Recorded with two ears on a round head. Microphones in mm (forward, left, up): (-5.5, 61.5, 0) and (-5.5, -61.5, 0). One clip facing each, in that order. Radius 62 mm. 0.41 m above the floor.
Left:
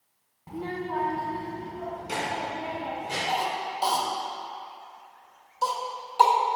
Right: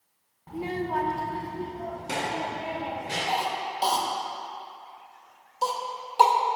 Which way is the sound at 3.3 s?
20° right (ahead or behind).